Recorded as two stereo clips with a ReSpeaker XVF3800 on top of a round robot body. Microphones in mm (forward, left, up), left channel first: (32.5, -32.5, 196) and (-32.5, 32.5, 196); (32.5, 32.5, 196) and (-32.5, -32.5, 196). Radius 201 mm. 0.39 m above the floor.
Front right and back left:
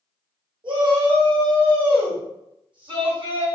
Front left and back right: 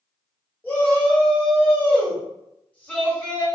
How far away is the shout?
About 1.7 m.